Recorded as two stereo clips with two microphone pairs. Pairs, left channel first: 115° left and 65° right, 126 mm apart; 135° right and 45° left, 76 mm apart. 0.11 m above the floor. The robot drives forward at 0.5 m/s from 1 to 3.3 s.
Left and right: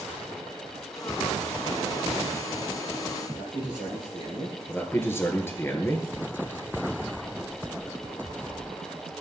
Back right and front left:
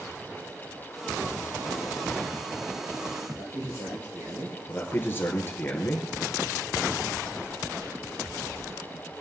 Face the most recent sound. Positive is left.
turn(degrees=180)